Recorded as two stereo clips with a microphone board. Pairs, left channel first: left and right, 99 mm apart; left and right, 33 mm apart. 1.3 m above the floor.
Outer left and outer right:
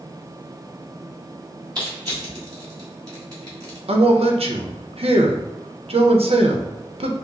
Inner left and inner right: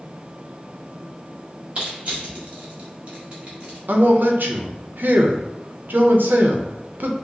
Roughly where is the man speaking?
Right.